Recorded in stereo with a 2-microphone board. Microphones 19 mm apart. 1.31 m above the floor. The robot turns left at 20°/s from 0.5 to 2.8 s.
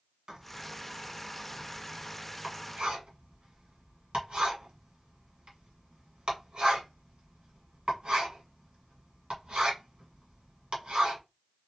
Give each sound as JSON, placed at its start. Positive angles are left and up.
{"t": 0.3, "sound": "writing", "side_deg": -45, "distance_m": 1.5}